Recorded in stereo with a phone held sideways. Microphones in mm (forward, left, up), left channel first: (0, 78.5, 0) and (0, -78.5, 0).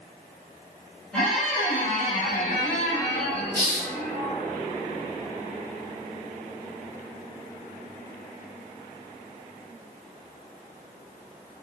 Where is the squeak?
5° left (ahead or behind), 1.2 m.